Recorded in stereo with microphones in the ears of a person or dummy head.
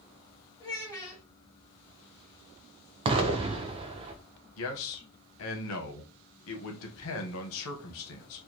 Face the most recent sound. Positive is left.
turn(degrees=75)  # may be behind; listen again after turning